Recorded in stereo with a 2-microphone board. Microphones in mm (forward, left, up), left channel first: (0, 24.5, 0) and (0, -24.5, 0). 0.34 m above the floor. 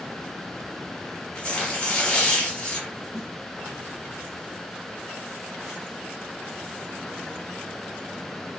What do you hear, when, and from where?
1.4 s tearing paper: 15° left (ahead or behind), 1.8 m
3.1 s a snare drum: 20° right (ahead or behind), 2 m